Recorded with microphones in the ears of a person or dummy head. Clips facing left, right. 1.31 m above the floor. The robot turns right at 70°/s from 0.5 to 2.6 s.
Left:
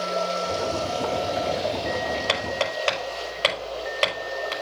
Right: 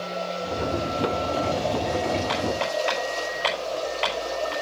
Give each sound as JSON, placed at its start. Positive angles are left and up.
{"t": 0.0, "sound": "running water", "azimuth_deg": 95, "distance_m": 4.5}
{"t": 2.3, "sound": "hammering", "side_deg": 75, "distance_m": 5.0}